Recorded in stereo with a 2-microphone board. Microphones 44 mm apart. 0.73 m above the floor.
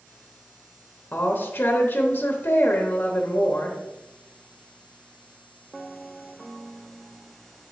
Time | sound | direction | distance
1.1 | a woman speaking | 45° left (ahead or behind) | 0.9 m